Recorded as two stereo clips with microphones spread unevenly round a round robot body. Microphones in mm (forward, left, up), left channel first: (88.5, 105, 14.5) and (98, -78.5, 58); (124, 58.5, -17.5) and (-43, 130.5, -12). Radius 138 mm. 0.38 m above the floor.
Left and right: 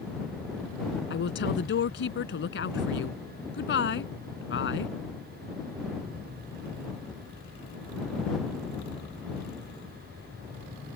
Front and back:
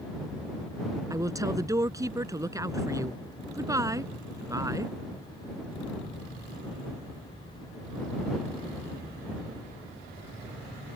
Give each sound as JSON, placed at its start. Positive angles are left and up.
{"t": 1.1, "sound": "a woman speaking", "azimuth_deg": 85}